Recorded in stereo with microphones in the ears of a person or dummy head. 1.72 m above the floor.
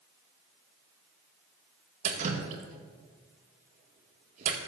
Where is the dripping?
45° right (ahead or behind), 1.8 m.